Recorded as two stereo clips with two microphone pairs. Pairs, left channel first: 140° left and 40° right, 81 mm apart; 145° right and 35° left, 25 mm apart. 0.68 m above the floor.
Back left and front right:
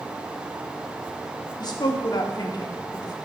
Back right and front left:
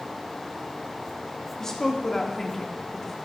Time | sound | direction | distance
1.6 | a woman speaking | 145° left | 1.4 m